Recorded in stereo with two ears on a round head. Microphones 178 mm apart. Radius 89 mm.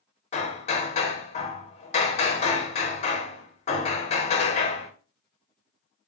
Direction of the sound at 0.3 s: 35° left (ahead or behind).